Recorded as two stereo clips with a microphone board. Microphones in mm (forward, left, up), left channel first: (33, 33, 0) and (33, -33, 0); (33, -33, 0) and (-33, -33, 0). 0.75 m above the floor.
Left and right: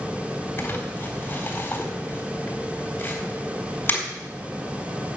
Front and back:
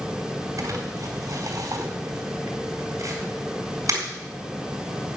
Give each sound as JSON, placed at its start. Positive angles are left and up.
{"t": 0.6, "sound": "crumpling", "azimuth_deg": 145, "distance_m": 4.0}